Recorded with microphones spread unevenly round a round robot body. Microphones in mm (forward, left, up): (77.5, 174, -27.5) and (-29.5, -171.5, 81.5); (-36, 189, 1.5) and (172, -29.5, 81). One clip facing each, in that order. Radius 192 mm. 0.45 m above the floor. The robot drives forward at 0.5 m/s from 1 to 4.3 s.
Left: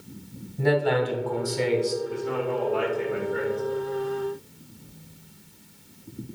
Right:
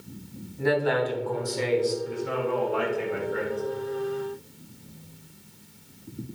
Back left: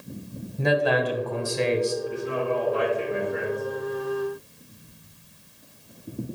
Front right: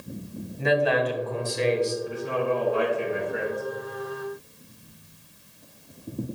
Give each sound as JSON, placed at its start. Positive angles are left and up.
{"t": 0.6, "sound": "a man speaking", "azimuth_deg": 105, "distance_m": 1.9}
{"t": 2.0, "sound": "a man speaking", "azimuth_deg": -70, "distance_m": 4.0}